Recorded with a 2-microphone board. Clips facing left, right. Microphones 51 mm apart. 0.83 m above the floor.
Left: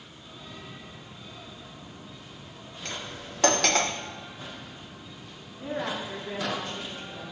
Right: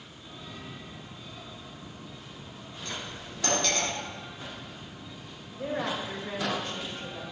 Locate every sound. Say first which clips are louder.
2.9 s cutlery clinking: left 1 dB; 80° left, 1.0 m
5.6 s a woman speaking: right 1 dB; 80° right, 4.5 m